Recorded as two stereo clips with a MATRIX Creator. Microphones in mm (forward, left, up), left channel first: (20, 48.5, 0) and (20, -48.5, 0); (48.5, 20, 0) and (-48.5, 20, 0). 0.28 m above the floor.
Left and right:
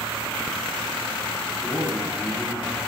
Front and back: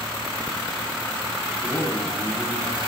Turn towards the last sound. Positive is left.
turn(degrees=50)